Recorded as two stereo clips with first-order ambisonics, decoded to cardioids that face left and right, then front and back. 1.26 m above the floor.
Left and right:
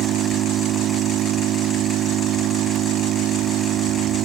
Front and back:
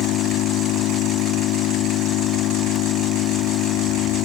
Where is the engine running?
40° right.